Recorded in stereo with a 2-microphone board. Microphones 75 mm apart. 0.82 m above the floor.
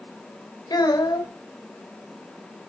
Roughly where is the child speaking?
Left.